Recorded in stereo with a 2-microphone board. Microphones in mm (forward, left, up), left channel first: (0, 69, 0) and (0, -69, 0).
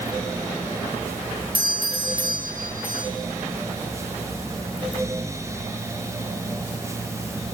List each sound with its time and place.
1.5 s a doorbell: 40° right (ahead or behind), 4 m